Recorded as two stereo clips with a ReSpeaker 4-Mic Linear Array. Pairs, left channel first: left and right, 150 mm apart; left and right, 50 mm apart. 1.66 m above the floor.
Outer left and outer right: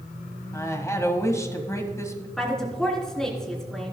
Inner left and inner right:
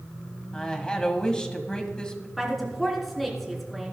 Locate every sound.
0.5 s a woman speaking: 20° left (ahead or behind), 1.8 m
2.4 s a woman speaking: 5° left (ahead or behind), 3.5 m